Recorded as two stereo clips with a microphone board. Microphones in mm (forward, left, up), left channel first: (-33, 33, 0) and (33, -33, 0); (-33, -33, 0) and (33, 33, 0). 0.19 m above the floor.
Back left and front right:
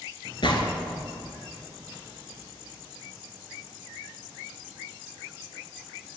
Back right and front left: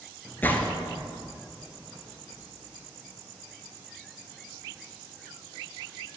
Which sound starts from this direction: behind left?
A gunshot, at 0.4 s.